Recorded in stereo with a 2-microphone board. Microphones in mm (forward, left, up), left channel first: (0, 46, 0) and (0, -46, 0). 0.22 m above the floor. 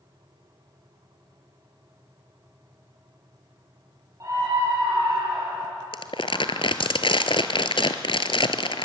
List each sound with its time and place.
4.2 s a scream: 35° right (ahead or behind), 7.5 m; by 5.8 s 45° right (ahead or behind), 7 m
5.9 s crumpling: 65° left (ahead or behind), 1.2 m